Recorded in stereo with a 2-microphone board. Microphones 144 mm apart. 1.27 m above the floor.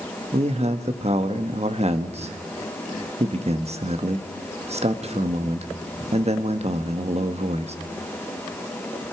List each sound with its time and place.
0.3 s a man speaking: 45° right (ahead or behind), 1.4 m